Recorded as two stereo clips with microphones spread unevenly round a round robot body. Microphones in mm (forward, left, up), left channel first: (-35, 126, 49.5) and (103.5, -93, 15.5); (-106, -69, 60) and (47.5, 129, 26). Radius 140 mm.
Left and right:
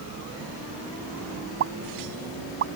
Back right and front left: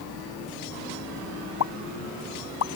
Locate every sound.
1.6 s a pop: 110° right